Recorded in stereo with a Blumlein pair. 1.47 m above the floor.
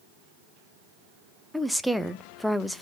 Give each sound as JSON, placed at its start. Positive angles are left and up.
{"t": 1.5, "sound": "a woman speaking", "azimuth_deg": 0, "distance_m": 0.7}